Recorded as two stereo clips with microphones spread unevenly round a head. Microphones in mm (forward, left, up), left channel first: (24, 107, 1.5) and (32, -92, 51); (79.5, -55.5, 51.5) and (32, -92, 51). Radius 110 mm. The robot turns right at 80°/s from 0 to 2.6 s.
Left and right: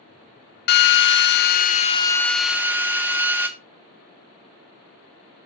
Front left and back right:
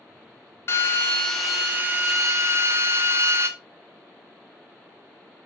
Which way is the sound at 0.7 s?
65° left.